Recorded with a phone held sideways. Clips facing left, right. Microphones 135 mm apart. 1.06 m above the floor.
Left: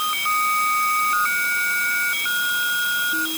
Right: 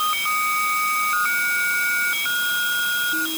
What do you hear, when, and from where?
Only background noise.